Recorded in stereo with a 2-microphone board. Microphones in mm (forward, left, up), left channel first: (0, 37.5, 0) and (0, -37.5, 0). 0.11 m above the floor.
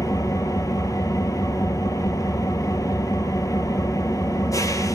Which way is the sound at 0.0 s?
50° left (ahead or behind).